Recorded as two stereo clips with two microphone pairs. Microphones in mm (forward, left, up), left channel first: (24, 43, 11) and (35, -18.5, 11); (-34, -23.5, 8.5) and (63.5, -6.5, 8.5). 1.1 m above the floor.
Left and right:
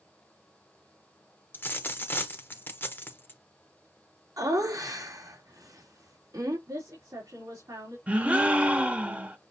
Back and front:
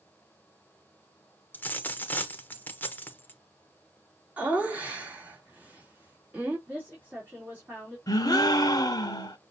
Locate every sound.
1.5 s a dropped coin: 125° left, 0.9 m
4.4 s laughter: 65° right, 2.5 m
6.7 s a woman speaking: 60° right, 2.5 m
8.1 s a gasp: 140° right, 1.0 m